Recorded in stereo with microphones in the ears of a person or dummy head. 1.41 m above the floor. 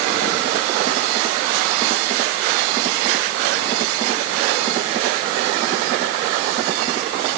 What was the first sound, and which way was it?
Only background noise.